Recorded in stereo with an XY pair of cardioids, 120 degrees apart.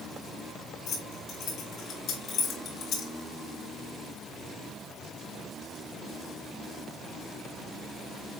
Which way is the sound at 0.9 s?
70° left.